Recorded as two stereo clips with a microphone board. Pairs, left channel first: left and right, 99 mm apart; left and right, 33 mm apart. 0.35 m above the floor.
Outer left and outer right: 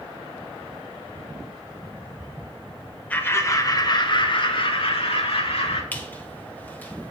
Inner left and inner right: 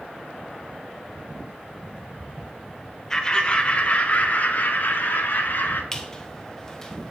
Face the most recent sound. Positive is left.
turn(degrees=15)  # may be behind; listen again after turning